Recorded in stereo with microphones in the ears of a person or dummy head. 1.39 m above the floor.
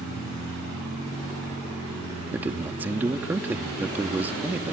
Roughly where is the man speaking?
Centre.